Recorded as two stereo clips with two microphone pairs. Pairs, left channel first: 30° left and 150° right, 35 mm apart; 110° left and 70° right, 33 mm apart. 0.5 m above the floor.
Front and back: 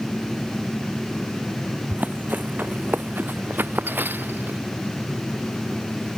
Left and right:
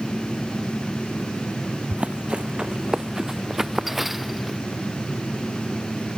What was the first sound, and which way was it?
Running footsteps, 115° right.